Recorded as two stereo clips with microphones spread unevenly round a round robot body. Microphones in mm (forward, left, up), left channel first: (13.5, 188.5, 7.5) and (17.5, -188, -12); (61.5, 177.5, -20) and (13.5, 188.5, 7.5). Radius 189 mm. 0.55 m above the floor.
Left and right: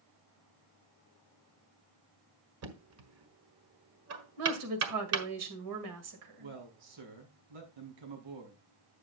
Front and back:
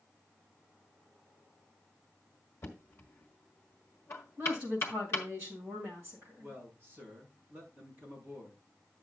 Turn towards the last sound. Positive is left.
turn(degrees=-110)